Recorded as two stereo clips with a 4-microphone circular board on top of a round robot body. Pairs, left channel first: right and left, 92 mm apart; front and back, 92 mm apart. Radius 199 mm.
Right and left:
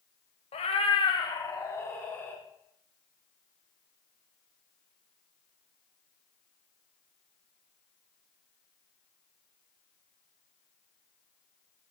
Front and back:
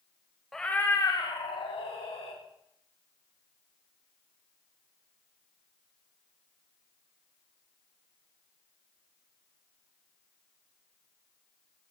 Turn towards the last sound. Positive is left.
turn(degrees=-20)